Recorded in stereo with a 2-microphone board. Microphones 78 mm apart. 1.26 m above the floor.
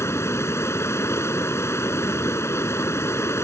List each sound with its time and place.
0.0 s running water: 35° left (ahead or behind)